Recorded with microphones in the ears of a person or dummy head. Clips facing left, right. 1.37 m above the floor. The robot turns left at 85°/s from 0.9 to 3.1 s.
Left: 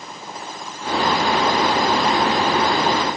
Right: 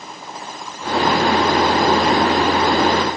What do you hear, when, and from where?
Only background noise.